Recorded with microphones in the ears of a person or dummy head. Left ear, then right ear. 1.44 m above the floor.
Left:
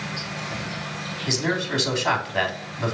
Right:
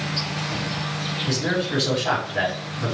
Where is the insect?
10° right (ahead or behind), 1.0 m.